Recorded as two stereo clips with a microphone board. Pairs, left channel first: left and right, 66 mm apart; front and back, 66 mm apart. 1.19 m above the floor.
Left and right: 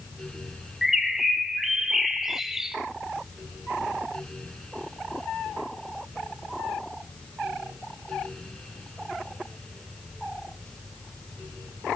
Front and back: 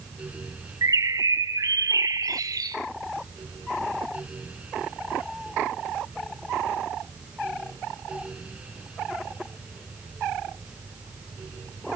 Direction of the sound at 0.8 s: 175° right.